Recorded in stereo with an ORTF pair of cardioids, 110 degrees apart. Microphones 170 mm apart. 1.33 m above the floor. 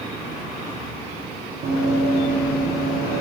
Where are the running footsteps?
65° right, 4 m; by 3.2 s 70° right, 5 m.